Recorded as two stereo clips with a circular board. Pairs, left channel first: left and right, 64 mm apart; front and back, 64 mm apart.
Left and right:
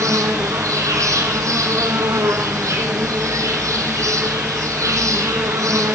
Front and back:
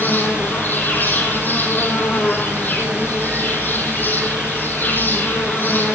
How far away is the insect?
About 1.8 m.